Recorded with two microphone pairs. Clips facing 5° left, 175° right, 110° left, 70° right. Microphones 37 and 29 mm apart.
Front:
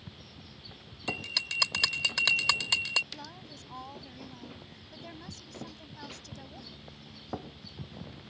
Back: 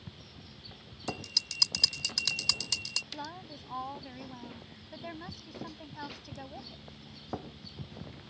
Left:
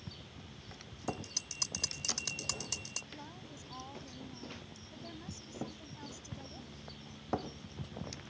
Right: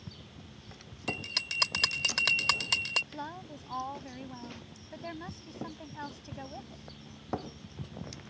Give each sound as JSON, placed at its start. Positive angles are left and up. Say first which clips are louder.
{"t": 1.1, "sound": "a bell", "louder": "front 4 dB, right 8 dB", "azimuth_deg": -40}
{"t": 3.1, "sound": "a woman speaking", "louder": "back 3 dB, right 8 dB", "azimuth_deg": -105}